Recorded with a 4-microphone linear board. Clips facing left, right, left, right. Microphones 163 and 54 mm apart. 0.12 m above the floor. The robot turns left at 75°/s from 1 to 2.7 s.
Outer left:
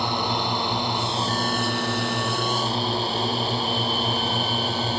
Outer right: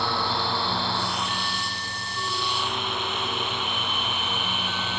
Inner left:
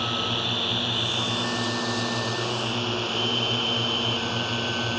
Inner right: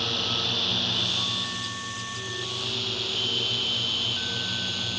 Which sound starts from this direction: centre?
A drone, at 0.0 s.